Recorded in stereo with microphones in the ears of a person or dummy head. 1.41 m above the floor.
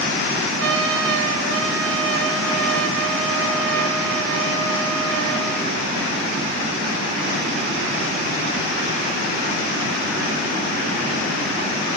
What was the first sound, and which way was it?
A trumpet, 80° right.